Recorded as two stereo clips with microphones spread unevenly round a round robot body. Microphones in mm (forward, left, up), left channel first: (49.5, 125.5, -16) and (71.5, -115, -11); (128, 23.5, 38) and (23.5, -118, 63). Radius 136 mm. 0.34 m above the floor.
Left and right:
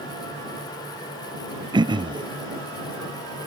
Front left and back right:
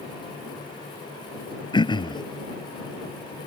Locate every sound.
1.7 s throat clearing: 15° right